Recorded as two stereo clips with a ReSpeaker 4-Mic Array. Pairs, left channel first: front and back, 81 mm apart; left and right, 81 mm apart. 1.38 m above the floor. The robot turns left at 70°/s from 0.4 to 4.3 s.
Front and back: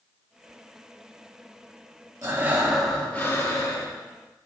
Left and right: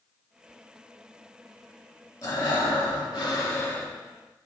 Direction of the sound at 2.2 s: 135° left.